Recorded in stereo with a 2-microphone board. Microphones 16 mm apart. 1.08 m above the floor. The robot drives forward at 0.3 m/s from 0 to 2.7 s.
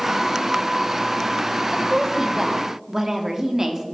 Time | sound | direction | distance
1.7 | a woman speaking | 35° right (ahead or behind) | 0.6 m